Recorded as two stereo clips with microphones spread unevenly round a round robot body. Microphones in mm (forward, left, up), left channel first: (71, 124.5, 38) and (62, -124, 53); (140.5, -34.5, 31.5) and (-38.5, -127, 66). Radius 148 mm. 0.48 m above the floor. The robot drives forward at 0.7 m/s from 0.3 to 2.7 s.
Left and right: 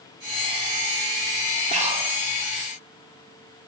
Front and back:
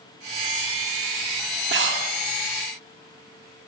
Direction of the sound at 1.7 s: 150° right.